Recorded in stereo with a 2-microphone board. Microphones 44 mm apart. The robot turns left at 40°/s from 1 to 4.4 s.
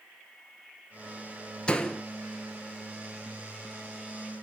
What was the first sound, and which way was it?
A door slam, 20° left (ahead or behind).